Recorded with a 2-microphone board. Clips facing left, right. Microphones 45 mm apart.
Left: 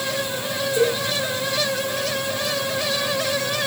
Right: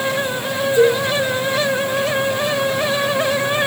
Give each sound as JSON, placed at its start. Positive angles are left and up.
{"t": 0.8, "sound": "a cowbell", "side_deg": 30, "distance_m": 2.5}